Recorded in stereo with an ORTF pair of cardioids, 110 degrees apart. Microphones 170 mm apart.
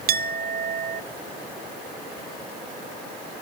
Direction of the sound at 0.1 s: 65° right.